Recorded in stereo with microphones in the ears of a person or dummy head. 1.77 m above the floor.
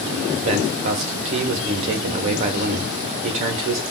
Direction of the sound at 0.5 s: 30° right (ahead or behind).